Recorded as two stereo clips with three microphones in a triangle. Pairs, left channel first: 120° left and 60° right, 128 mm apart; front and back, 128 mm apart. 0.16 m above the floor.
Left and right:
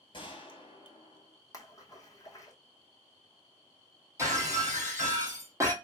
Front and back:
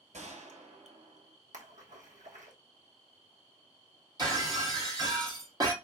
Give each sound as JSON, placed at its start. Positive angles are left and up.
{"t": 0.1, "sound": "a gunshot", "azimuth_deg": 165, "distance_m": 1.3}
{"t": 1.5, "sound": "a splash", "azimuth_deg": -175, "distance_m": 1.0}
{"t": 4.2, "sound": "breaking glass", "azimuth_deg": -130, "distance_m": 2.0}